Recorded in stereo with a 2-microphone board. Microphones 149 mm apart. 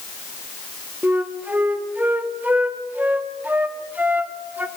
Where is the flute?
10° right (ahead or behind), 1.3 m.